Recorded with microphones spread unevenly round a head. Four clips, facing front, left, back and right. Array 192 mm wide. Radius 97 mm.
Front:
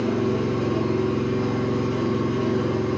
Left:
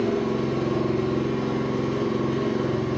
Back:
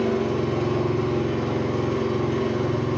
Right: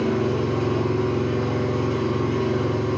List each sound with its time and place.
0.0 s an engine running: 140° right, 1.4 m